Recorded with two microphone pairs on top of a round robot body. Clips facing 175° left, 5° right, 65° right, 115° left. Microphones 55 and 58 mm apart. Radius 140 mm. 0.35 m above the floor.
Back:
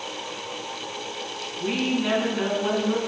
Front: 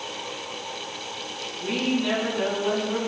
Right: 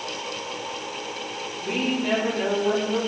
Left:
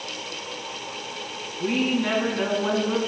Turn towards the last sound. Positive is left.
turn(degrees=110)